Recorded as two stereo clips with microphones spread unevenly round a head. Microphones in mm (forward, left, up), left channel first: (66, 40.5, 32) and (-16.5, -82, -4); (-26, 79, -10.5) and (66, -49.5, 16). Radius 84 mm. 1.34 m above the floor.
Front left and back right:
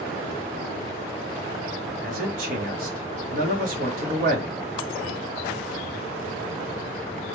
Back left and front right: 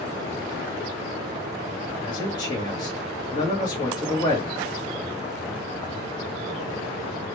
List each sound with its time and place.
2.0 s a man speaking: 165° right, 1.2 m